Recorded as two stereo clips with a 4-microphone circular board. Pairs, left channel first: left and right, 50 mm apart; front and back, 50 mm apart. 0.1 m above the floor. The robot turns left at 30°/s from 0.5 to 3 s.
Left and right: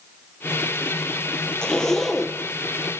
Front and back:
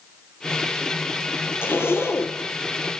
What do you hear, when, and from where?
1.6 s a zipper: 20° left, 1.5 m; by 2.4 s 5° right, 1.5 m